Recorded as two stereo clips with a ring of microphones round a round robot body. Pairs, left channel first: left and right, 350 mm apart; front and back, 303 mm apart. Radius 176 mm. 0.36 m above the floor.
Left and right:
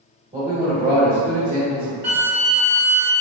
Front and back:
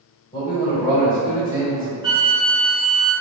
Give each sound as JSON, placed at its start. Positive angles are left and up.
{"t": 0.3, "sound": "a man speaking", "azimuth_deg": -50, "distance_m": 1.5}
{"t": 2.0, "sound": "a flute", "azimuth_deg": -80, "distance_m": 1.8}